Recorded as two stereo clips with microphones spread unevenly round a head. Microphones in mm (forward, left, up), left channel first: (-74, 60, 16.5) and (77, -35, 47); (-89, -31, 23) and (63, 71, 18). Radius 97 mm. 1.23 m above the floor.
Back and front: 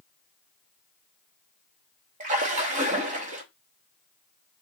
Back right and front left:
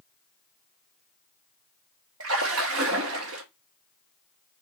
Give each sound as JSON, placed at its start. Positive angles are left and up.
{"t": 2.2, "sound": "a splash", "azimuth_deg": 15, "distance_m": 1.1}